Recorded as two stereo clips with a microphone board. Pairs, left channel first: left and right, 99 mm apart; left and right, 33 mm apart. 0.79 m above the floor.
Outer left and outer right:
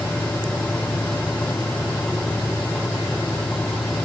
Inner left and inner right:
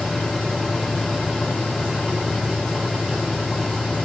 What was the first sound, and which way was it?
Only background noise.